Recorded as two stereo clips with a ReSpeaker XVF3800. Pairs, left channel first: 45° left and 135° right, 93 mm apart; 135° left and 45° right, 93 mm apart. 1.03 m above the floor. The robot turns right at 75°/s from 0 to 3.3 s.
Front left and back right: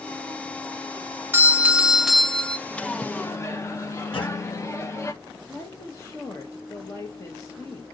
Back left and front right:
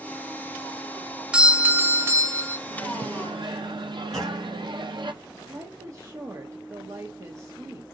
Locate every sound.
1.3 s a doorbell: 110° right, 0.5 m; by 2.6 s 15° right, 0.5 m
2.7 s a microwave: 60° right, 0.8 m; by 5.1 s 15° right, 0.8 m
4.1 s a clunk: 45° left, 3 m
5.5 s a woman speaking: straight ahead, 1.0 m